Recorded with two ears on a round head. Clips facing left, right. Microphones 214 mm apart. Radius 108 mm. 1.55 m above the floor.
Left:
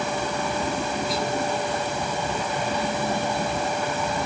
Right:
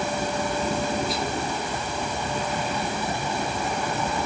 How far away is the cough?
I don't hear a cough.